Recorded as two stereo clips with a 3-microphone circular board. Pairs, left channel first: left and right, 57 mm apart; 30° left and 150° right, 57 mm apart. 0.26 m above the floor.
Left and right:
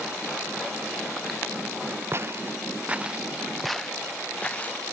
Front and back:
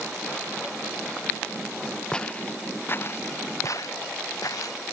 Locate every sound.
2.1 s footsteps: 50° right; by 4.8 s 30° left